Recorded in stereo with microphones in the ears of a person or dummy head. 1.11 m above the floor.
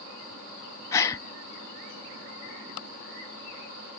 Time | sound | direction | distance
0.9 | a gasp | 20° left (ahead or behind) | ?